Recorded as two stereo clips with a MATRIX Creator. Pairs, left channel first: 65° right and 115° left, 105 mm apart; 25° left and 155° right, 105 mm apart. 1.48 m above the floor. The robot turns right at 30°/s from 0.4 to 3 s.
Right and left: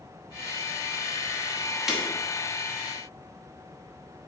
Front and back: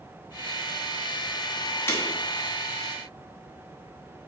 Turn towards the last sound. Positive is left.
turn(degrees=70)